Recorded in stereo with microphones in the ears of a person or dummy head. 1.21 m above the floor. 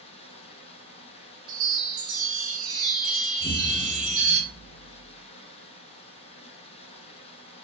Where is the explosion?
30° right (ahead or behind), 1.6 m.